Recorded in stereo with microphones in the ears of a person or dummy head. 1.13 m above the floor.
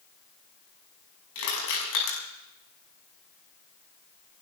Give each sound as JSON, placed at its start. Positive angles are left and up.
{"t": 1.4, "sound": "crushing", "side_deg": 90, "distance_m": 7.0}